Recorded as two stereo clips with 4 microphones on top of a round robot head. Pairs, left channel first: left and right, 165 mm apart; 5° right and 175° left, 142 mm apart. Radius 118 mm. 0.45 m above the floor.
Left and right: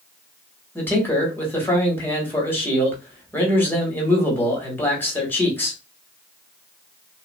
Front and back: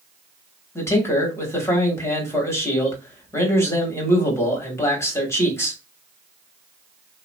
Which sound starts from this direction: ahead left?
A man speaking, at 0.8 s.